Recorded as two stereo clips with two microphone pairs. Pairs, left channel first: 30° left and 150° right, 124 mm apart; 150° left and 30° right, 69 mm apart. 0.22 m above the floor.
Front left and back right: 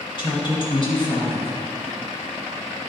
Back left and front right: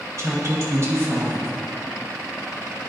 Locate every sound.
0.2 s a woman speaking: 5° right, 1.9 m